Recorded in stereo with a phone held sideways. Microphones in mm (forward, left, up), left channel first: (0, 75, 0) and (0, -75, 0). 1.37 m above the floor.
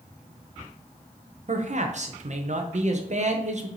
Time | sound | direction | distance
1.5 | a man speaking | 50° right (ahead or behind) | 0.7 m